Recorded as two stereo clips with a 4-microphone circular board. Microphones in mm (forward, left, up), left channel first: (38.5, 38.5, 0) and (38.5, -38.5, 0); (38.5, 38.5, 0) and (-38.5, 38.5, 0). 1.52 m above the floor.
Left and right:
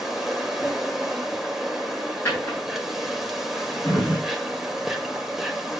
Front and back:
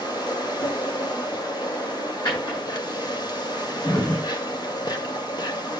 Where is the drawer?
25° left, 9.5 m.